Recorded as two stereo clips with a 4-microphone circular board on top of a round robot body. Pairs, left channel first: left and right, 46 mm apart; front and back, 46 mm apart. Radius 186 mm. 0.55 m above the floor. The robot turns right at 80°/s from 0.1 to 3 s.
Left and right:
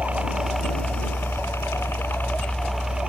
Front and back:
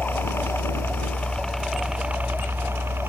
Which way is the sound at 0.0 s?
35° right.